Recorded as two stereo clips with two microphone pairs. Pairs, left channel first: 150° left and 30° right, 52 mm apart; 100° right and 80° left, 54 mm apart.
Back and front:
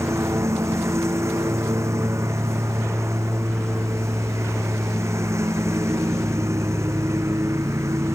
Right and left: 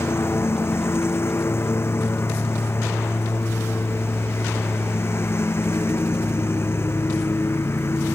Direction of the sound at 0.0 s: 55° right.